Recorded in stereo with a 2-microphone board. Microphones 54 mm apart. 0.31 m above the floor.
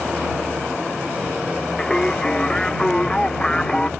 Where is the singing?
15° left (ahead or behind).